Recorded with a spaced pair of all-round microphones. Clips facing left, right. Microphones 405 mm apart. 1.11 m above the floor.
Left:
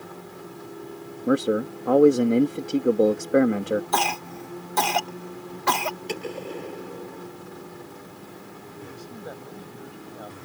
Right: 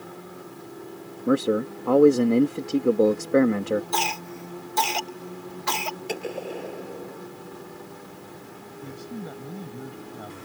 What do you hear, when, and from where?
1.3 s a man speaking: centre (ahead or behind)
3.9 s a cough: 60° left (ahead or behind)
6.1 s a gunshot: 10° left (ahead or behind)
8.8 s a man speaking: 35° right (ahead or behind)